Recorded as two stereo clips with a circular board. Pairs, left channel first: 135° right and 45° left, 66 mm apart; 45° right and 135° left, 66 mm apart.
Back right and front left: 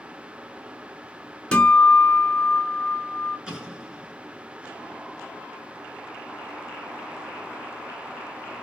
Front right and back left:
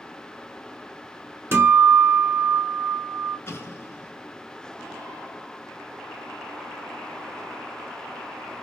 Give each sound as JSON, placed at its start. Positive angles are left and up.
{"t": 1.5, "sound": "a guitar", "azimuth_deg": 155, "distance_m": 0.8}
{"t": 3.5, "sound": "an explosion", "azimuth_deg": -25, "distance_m": 0.8}